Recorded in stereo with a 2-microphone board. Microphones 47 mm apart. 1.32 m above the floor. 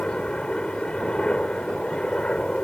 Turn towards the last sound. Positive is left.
turn(degrees=20)  # may be behind; listen again after turning